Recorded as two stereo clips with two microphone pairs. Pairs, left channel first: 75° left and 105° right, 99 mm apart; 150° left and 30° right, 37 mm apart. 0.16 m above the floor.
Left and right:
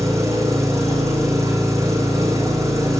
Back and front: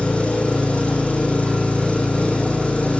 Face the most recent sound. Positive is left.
turn(degrees=-160)